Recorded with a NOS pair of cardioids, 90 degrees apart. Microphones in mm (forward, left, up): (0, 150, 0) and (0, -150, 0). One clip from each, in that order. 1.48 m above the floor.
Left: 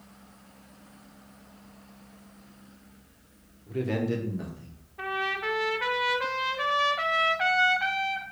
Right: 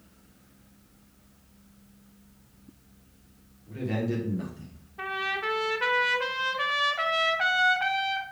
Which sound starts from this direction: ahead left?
A man speaking, at 3.7 s.